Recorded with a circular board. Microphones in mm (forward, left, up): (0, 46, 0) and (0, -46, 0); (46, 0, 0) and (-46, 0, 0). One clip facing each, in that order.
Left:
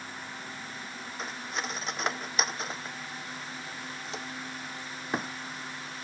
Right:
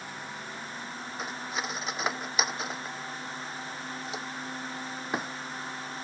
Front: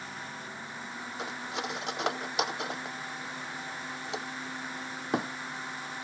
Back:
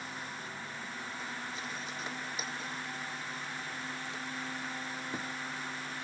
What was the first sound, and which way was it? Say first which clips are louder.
Cutlery clinking: right 1 dB, front 5 dB; 5° right.